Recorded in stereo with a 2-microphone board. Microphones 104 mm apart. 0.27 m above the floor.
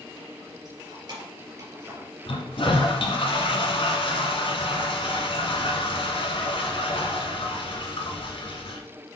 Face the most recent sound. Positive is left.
turn(degrees=55)  # may be behind; listen again after turning